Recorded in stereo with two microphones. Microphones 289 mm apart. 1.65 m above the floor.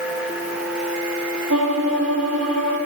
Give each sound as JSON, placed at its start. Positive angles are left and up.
{"t": 1.5, "sound": "a violin", "side_deg": -70, "distance_m": 4.0}